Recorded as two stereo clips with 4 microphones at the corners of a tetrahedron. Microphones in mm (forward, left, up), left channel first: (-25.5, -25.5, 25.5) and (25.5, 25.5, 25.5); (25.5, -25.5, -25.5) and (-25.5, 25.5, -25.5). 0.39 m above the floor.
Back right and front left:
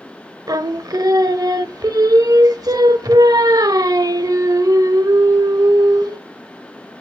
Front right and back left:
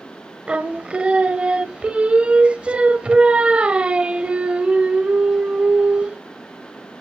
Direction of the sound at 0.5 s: 65° left.